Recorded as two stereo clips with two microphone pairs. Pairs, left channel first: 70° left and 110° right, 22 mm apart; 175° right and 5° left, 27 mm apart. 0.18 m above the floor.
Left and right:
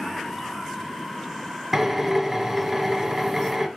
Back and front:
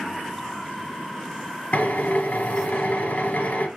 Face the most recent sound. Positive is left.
turn(degrees=180)